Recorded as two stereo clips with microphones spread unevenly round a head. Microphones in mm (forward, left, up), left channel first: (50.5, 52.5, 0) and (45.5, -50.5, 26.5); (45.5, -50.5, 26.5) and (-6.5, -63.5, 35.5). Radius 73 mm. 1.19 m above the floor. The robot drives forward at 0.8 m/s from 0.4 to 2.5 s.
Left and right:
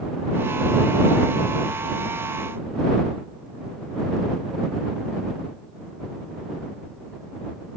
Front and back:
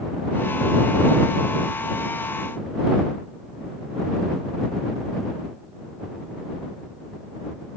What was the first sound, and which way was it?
Only background noise.